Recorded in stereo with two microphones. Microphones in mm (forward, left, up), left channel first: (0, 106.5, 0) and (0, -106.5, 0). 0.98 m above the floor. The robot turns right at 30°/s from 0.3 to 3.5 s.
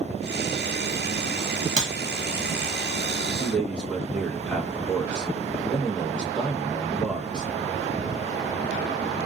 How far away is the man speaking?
About 1.0 m.